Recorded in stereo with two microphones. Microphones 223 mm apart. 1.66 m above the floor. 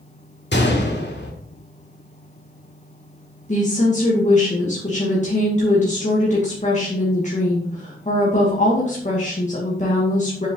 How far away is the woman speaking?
About 2 m.